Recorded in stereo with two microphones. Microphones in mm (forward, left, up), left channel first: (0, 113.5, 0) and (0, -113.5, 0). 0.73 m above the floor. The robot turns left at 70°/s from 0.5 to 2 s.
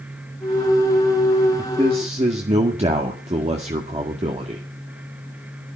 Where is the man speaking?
5° right (ahead or behind), 1.8 m; by 4.6 s 30° right (ahead or behind), 1.8 m.